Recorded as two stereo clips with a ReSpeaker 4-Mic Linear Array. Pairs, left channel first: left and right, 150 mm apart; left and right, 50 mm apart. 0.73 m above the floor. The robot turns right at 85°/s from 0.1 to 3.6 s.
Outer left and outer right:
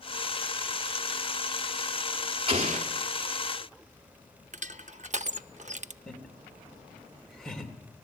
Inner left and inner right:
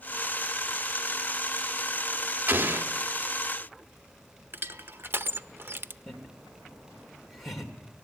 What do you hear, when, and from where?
2.5 s an explosion: 135° right, 1.8 m; by 2.9 s 100° right, 1.8 m
4.5 s crushing: 50° right (ahead or behind), 0.6 m
6.1 s laughter: 5° left (ahead or behind), 2.5 m